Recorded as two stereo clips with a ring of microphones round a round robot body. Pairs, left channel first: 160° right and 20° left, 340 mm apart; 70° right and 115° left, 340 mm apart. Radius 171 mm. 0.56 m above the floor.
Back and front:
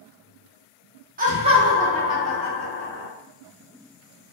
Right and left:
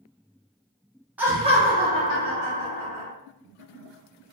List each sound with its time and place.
1.2 s laughter: 35° left, 0.7 m; by 3.1 s 130° left, 1.2 m